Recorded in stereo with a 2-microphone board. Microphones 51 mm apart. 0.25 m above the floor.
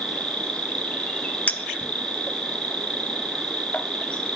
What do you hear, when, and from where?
0.0 s an insect: 20° left (ahead or behind), 1.6 m
1.5 s a clink: 30° left (ahead or behind), 0.7 m